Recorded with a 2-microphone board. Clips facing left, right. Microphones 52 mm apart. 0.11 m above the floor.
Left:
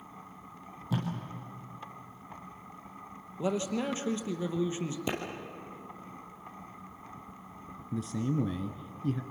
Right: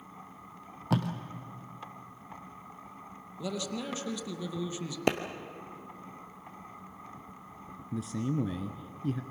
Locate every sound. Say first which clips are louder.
0.9 s tape being pulled: right 4 dB; 70° right (ahead or behind), 2.5 m
3.4 s a man speaking: left 5 dB; 35° left (ahead or behind), 2.5 m
5.1 s a clap: right 7 dB; 65° right (ahead or behind), 2 m
7.9 s a man speaking: left 1 dB; centre (ahead or behind), 1.2 m